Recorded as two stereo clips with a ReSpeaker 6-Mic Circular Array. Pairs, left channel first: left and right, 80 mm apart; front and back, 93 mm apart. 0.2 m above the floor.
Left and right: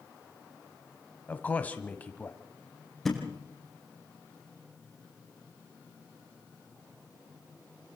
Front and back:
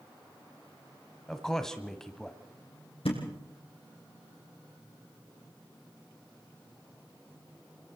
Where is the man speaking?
75° left, 1.3 m.